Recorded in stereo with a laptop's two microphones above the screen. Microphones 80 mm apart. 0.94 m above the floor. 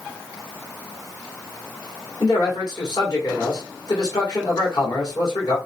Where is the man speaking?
60° left (ahead or behind), 2.5 m.